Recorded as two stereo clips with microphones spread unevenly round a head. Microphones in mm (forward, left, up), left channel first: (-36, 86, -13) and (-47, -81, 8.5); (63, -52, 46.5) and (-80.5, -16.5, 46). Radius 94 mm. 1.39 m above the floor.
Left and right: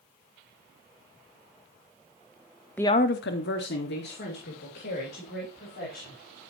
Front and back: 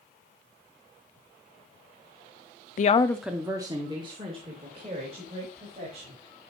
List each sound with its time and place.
2.8 s a woman speaking: 10° left, 0.5 m; by 6.2 s 115° left, 5 m